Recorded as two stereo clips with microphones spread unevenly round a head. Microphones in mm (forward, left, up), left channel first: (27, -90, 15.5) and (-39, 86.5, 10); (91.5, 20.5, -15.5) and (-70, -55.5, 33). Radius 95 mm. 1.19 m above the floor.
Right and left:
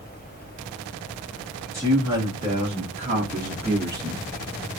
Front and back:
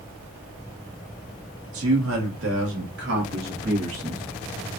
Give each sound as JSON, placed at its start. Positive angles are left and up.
{"t": 1.7, "sound": "a man speaking", "azimuth_deg": -175, "distance_m": 1.8}